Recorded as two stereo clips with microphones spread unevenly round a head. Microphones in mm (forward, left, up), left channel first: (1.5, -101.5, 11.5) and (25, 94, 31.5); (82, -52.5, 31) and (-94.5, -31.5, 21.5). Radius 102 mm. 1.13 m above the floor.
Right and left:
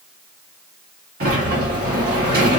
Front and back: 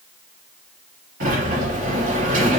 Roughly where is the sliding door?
Behind left.